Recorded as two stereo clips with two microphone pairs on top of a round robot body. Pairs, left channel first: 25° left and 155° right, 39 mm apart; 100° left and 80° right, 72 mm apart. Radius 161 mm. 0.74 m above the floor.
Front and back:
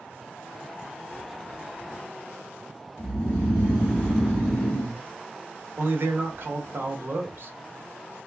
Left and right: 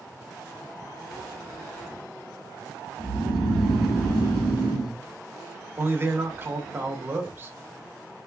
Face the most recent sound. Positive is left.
turn(degrees=-140)